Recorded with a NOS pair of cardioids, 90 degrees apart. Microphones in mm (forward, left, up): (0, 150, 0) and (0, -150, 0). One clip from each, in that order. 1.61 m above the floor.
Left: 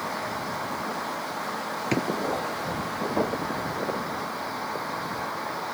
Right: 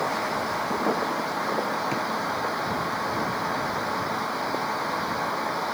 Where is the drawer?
50° left.